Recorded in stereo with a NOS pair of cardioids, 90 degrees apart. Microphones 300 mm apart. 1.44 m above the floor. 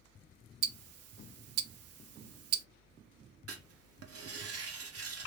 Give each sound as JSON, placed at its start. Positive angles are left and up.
{"t": 0.6, "sound": "ticking", "azimuth_deg": -60, "distance_m": 0.5}
{"t": 3.5, "sound": "writing", "azimuth_deg": -55, "distance_m": 0.9}